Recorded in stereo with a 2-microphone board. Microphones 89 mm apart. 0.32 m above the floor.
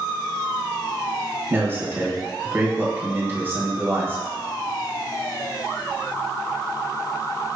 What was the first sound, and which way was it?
A man speaking, 25° right (ahead or behind).